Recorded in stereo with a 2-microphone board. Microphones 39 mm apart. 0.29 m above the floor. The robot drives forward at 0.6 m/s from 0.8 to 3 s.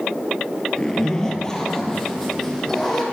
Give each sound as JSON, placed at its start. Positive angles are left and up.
{"t": 0.8, "sound": "a zipper", "side_deg": 20, "distance_m": 0.9}